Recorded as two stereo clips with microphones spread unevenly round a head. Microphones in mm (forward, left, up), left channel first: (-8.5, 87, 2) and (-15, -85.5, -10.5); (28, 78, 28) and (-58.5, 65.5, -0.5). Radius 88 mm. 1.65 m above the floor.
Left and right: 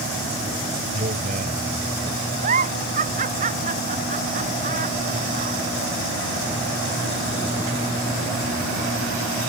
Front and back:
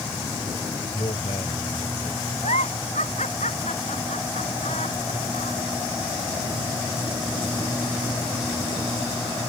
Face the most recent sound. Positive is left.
turn(degrees=-40)